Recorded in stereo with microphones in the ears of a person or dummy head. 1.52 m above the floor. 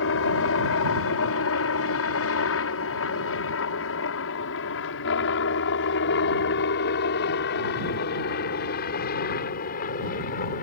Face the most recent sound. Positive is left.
turn(degrees=45)  # may be behind; listen again after turning